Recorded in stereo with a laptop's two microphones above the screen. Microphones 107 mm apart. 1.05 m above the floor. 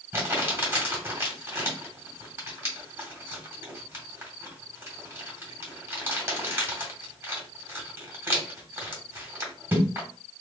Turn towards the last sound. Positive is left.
turn(degrees=-25)  # may be behind; listen again after turning